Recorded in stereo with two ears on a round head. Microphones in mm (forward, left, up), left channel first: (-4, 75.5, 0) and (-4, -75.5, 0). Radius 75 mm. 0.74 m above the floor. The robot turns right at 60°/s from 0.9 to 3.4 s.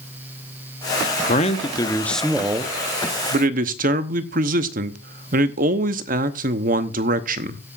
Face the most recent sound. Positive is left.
turn(degrees=-110)